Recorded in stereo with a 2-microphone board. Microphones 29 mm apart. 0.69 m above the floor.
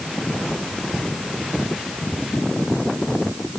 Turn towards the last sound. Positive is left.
No sound to turn to.